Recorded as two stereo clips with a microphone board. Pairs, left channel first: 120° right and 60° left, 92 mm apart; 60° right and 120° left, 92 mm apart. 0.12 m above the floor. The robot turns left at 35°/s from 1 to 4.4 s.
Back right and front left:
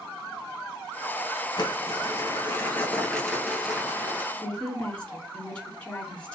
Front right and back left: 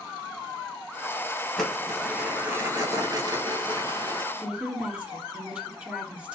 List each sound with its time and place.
1.6 s crumpling: 145° right, 1.5 m; by 4.2 s 120° left, 1.5 m
4.3 s a woman speaking: straight behind, 1.5 m